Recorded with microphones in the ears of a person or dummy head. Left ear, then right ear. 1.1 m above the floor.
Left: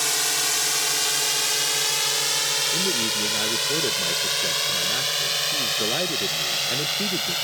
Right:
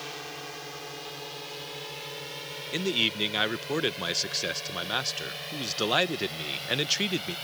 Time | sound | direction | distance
0.0 | a drone | 70° left (ahead or behind) | ?
2.7 | a man speaking | 45° right (ahead or behind) | ?